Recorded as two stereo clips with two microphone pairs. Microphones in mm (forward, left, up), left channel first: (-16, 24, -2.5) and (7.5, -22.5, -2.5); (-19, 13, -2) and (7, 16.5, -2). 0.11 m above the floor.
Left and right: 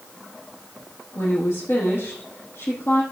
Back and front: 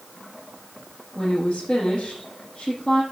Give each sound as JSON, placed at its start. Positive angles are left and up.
{"t": 1.1, "sound": "a woman speaking", "azimuth_deg": 140, "distance_m": 4.5}